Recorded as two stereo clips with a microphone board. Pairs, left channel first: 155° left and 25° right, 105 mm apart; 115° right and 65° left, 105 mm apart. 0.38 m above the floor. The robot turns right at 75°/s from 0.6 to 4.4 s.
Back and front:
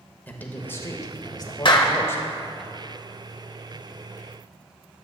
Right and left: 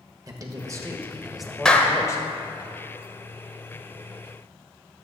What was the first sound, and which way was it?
A man speaking, 95° left.